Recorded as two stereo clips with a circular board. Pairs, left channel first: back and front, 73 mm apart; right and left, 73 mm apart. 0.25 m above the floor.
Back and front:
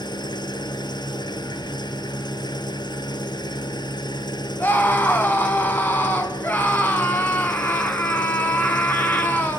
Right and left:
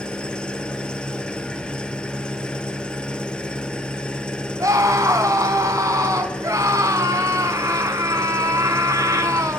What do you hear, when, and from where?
0.0 s an engine running: 170° right, 1.6 m
4.6 s a scream: 120° left, 2.5 m